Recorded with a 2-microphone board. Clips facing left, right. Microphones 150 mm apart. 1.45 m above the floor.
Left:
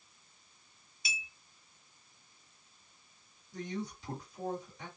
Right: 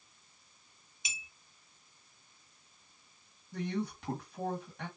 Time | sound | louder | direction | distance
1.1 | a clink | left 5 dB | 20° right (ahead or behind) | 0.8 m
3.5 | a man speaking | right 4 dB | 65° right (ahead or behind) | 1.5 m